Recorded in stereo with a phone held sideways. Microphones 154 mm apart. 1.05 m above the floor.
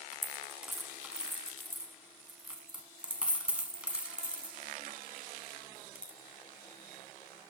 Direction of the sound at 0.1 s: 5° right (ahead or behind).